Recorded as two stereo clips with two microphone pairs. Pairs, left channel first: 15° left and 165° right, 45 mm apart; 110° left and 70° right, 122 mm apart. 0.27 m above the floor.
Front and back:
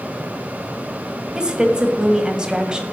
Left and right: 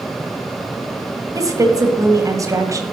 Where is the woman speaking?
105° right, 1.6 m.